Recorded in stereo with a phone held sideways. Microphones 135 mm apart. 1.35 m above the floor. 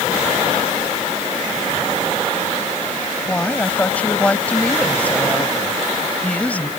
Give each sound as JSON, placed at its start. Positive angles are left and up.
{"t": 3.3, "sound": "a woman speaking", "side_deg": 10}